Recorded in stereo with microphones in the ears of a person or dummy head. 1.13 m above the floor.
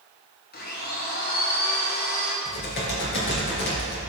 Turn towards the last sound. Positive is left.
turn(degrees=65)  # may be behind; listen again after turning